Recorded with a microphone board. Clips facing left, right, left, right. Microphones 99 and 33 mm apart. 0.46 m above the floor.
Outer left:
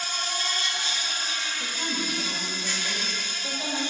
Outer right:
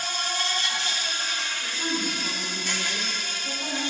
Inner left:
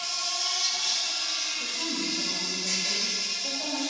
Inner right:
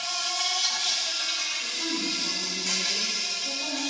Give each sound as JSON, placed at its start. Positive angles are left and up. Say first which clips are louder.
{"t": 0.0, "sound": "an insect", "louder": "outer right 2 dB, inner right 2 dB", "side_deg": -70, "distance_m": 1.1}
{"t": 1.6, "sound": "a woman speaking", "louder": "outer right 3 dB, inner right 1 dB", "side_deg": 40, "distance_m": 2.0}